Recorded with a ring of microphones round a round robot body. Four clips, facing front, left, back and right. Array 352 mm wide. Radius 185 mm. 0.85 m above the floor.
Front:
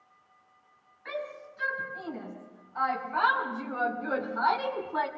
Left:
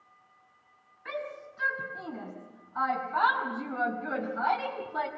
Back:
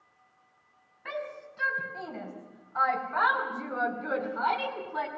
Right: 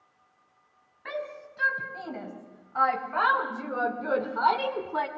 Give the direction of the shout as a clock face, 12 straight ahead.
4 o'clock.